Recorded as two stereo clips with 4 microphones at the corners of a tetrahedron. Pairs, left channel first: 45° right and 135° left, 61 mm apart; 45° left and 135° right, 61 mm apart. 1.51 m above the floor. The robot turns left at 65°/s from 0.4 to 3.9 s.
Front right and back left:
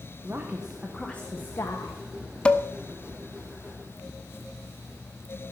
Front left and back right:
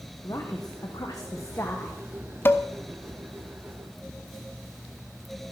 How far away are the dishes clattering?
About 0.7 m.